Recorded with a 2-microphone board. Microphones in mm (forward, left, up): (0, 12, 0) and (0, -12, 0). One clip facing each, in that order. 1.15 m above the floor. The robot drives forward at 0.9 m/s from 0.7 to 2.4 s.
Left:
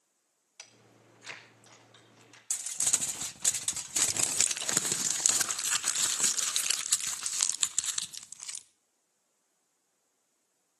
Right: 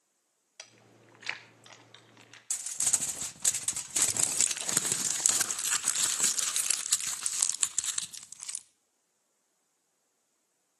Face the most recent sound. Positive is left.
turn(degrees=25)  # may be behind; listen again after turning